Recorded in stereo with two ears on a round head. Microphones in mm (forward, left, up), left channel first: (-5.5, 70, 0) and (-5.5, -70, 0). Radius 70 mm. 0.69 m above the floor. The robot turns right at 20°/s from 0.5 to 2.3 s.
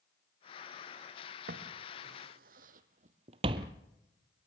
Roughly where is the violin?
I don't hear a violin.